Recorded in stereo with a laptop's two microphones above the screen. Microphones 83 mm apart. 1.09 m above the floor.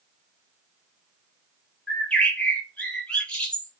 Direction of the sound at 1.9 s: 15° left (ahead or behind).